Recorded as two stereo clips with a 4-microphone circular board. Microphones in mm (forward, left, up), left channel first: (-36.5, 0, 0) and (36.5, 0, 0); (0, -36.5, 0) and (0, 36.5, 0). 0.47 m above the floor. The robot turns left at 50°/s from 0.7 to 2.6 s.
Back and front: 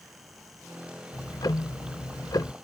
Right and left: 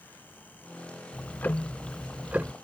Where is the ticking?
140° right; by 2.5 s 150° left.